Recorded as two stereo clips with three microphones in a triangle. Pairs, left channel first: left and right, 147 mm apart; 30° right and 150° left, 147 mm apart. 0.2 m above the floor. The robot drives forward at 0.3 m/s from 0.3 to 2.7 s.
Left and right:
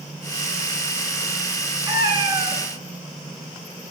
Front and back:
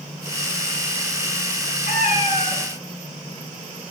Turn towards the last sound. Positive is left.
turn(degrees=-55)